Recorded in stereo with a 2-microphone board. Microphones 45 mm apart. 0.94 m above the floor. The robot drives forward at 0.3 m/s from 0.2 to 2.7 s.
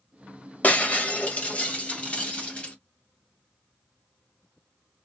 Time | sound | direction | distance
0.6 | breaking glass | 35° left (ahead or behind) | 1.3 m